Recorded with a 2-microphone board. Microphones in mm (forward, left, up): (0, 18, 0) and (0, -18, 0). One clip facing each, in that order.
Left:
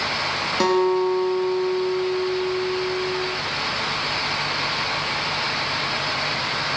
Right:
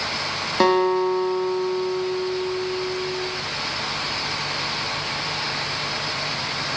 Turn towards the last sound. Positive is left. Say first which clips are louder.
# right 1 dB
turn(degrees=-15)  # may be behind; listen again after turning